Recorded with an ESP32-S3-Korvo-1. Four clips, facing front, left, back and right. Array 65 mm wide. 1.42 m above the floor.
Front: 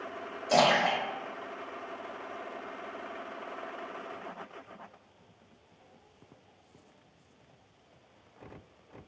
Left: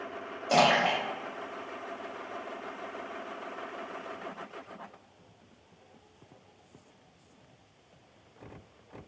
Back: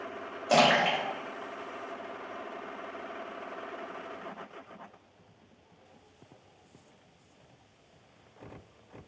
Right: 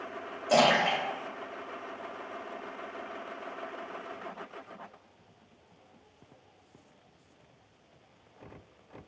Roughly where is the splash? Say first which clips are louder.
Even, back 1 dB; behind.